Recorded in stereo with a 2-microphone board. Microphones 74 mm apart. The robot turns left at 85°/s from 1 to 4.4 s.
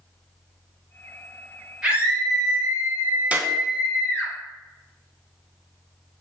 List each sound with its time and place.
1.8 s a scream: 10° right, 3.5 m; by 4.3 s 140° left, 3.5 m
3.3 s a clap: 20° right (ahead or behind), 1.1 m; by 3.5 s 25° right (ahead or behind), 1.1 m